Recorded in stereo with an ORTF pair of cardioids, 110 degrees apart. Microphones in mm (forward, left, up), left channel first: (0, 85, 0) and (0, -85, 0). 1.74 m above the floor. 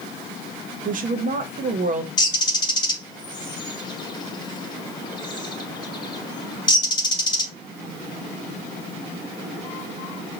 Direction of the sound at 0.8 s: 50° right.